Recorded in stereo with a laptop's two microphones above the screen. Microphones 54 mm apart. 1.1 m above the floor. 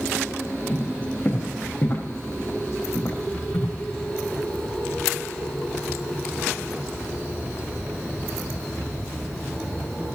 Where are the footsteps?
25° left (ahead or behind), 4 m; by 3.7 s 75° left (ahead or behind), 5 m.